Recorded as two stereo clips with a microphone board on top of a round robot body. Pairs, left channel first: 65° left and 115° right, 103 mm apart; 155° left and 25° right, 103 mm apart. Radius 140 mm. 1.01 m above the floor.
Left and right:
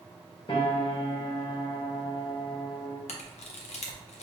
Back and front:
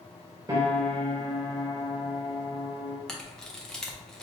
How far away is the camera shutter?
About 0.5 m.